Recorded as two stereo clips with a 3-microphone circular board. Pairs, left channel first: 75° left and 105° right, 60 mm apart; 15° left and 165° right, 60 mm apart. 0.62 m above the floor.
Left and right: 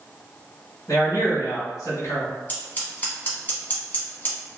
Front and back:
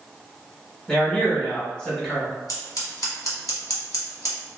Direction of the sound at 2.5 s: 20° left.